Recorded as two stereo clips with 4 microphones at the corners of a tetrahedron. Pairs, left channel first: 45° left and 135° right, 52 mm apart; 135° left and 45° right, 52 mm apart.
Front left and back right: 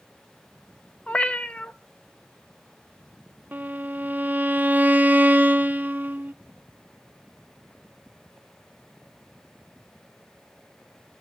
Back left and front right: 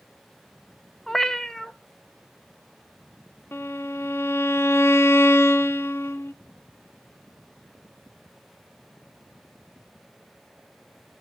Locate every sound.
1.1 s a cat meowing: 60° left, 0.7 m
3.5 s a violin: 175° left, 0.6 m